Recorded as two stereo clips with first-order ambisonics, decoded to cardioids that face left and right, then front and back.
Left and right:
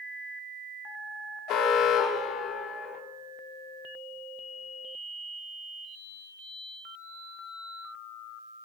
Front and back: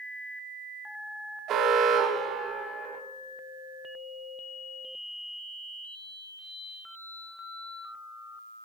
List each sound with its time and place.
1.5 s an alarm: 130° left, 1.3 m